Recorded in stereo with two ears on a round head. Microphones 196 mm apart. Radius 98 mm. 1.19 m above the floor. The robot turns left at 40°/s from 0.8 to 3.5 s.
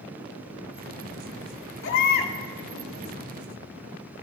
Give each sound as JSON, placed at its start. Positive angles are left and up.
{"t": 1.8, "sound": "a baby crying", "side_deg": 60, "distance_m": 2.5}